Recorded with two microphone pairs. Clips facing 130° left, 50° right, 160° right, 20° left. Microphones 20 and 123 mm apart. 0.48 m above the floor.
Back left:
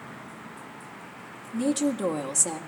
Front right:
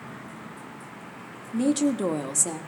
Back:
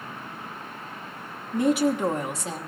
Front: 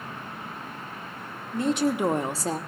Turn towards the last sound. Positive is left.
turn(degrees=45)